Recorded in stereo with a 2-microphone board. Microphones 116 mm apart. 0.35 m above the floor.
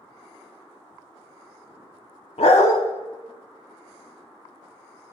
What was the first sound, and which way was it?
A dog barking, 70° left (ahead or behind).